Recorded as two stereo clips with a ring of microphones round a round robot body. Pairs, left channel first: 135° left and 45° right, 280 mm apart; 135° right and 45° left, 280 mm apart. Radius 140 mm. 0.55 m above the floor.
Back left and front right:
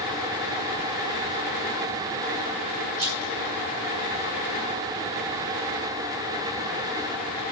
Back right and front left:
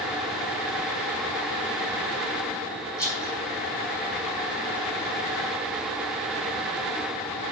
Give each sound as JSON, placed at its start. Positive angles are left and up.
{"t": 3.0, "sound": "a rattle", "azimuth_deg": -55, "distance_m": 4.5}